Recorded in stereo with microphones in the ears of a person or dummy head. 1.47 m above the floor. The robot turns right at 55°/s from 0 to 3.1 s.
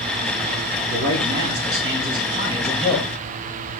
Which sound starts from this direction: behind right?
A man speaking, at 0.9 s.